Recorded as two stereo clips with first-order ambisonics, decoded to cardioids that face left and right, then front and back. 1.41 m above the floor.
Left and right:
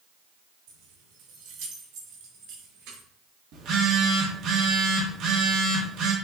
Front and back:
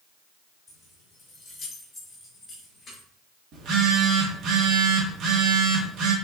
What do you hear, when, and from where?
0.7 s keys jangling: 85° right, 3 m; by 3.0 s 80° right, 4.5 m
3.5 s a phone buzzing: 135° right, 1.9 m